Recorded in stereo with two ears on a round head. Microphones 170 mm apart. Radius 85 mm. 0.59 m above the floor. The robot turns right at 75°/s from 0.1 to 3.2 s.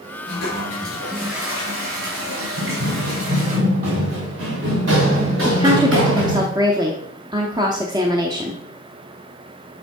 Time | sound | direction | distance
0.3 | a toilet flushing | 105° left | 4 m
2.6 | running footsteps | 80° right | 4 m
5.5 | a woman speaking | 20° right (ahead or behind) | 0.8 m